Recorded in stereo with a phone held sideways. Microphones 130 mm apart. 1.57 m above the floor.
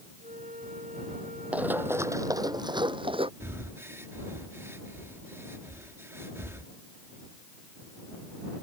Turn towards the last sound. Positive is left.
turn(degrees=-20)  # may be behind; listen again after turning